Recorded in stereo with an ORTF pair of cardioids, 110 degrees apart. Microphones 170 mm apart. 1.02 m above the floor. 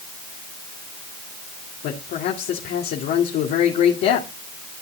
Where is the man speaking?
70° left, 2 m.